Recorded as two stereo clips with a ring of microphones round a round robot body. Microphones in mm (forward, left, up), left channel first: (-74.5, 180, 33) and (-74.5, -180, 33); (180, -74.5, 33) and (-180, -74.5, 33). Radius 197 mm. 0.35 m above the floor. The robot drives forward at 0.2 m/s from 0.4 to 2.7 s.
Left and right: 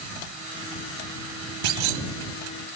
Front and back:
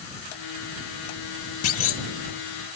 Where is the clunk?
55° right, 0.7 m; by 2.0 s 60° right, 0.7 m.